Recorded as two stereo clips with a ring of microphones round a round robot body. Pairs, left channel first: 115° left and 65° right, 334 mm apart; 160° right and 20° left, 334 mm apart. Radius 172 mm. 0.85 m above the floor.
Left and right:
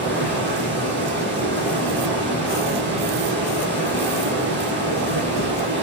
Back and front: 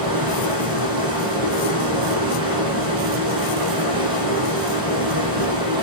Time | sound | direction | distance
0.0 | running water | 10° right | 7.5 m